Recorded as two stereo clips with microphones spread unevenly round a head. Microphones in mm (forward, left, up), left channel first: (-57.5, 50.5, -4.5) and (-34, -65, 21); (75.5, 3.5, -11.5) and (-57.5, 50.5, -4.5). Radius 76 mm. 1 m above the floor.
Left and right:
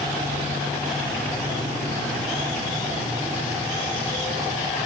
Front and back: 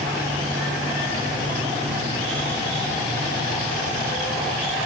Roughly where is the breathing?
No breathing in this recording.